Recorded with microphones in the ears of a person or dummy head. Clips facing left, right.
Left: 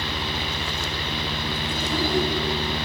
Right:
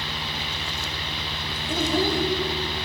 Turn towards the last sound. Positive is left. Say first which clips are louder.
# right 3 dB
turn(degrees=-40)  # may be behind; listen again after turning